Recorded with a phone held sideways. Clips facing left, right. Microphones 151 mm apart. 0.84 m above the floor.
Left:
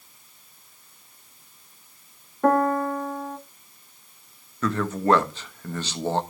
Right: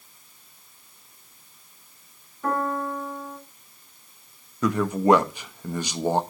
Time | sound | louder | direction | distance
2.4 | a piano | left 6 dB | 60° left (ahead or behind) | 1.5 m
4.6 | a man speaking | right 3 dB | 15° right (ahead or behind) | 1.2 m